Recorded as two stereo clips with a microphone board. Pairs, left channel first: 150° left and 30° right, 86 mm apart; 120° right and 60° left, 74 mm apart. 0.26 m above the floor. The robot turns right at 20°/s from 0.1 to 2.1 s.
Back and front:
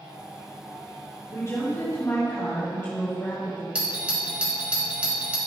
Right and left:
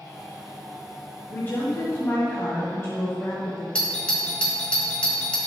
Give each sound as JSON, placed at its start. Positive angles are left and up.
{"t": 1.3, "sound": "a woman speaking", "azimuth_deg": -170, "distance_m": 1.8}
{"t": 3.8, "sound": "a doorbell", "azimuth_deg": -75, "distance_m": 1.6}